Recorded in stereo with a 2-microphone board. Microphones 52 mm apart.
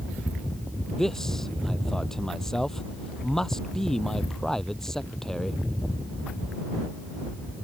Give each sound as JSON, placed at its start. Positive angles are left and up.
{"t": 0.9, "sound": "a man speaking", "side_deg": 10}